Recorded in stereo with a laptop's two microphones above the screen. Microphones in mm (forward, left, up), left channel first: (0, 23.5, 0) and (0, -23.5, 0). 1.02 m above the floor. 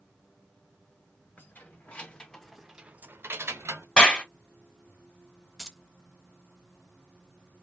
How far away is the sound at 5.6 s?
About 0.6 m.